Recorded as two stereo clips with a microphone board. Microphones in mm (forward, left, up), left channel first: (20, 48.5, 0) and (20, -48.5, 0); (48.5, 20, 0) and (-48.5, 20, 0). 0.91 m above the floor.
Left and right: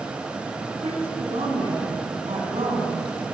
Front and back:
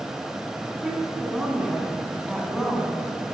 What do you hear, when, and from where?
0.8 s a woman speaking: 95° right, 9.5 m; by 3.4 s 85° right, 7.5 m